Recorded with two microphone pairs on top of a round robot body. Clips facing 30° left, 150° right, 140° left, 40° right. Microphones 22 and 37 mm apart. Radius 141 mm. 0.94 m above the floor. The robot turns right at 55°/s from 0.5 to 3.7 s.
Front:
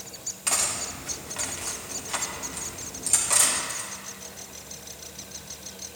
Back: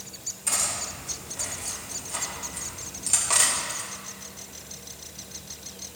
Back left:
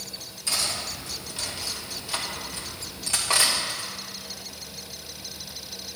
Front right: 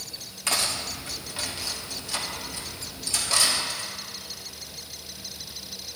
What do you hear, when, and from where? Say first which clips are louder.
0.5 s cutlery clinking: front 1 dB, front right 2 dB; 15° right, 1.4 m; by 3.9 s 160° left, 1.4 m